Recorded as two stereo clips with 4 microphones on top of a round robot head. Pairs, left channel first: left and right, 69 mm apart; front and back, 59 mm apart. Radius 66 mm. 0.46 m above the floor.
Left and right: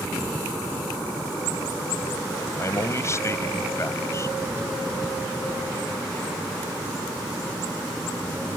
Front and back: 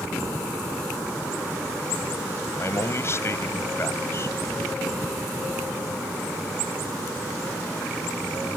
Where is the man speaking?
45° left.